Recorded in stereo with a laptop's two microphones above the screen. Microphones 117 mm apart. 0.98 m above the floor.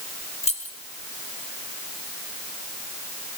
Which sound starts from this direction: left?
Keys jangling, at 0.4 s.